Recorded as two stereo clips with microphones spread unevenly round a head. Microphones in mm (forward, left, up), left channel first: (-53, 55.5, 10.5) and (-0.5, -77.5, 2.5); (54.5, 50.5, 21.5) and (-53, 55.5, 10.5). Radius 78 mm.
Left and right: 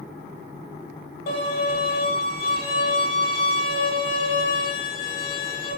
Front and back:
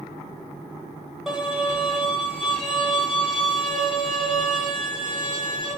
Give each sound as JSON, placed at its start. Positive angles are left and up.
{"t": 1.3, "sound": "a violin", "azimuth_deg": 95, "distance_m": 1.3}